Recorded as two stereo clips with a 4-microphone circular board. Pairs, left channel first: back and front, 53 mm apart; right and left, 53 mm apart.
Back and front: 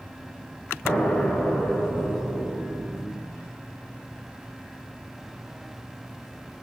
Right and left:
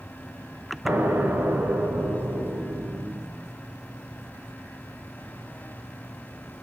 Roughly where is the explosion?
Behind left.